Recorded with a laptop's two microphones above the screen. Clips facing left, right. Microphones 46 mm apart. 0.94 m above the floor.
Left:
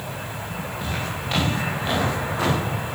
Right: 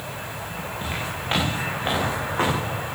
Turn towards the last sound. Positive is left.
turn(degrees=-40)  # may be behind; listen again after turning